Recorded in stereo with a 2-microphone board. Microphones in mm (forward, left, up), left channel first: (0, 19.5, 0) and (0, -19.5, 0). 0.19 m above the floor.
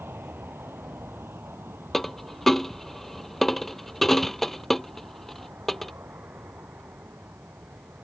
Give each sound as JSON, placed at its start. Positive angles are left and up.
{"t": 0.0, "sound": "an aircraft", "side_deg": -75}
{"t": 1.9, "sound": "a dropped coin", "side_deg": 5}